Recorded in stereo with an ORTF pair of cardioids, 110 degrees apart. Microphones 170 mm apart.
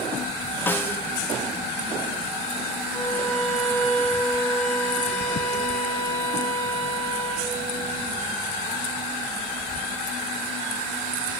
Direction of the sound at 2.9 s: 15° left.